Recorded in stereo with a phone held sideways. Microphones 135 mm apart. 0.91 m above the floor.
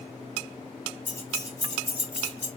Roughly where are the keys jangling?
Centre.